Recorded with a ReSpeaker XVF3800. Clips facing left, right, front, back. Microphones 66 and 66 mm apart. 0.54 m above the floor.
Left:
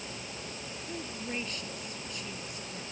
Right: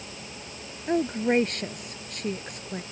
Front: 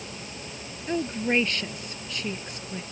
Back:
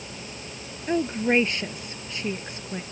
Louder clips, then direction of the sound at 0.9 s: Right 16 dB, back 3 dB; 110° right.